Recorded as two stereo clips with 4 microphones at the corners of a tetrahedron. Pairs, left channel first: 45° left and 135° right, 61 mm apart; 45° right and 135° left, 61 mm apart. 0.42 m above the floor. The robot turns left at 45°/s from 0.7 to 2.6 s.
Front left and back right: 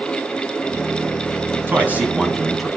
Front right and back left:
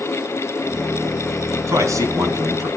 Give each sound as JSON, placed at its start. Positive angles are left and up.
{"t": 1.7, "sound": "a man speaking", "azimuth_deg": 175, "distance_m": 4.0}